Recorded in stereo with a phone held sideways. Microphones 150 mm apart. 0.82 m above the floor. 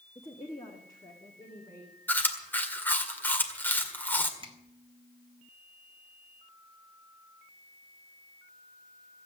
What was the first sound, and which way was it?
A woman speaking, 25° left (ahead or behind).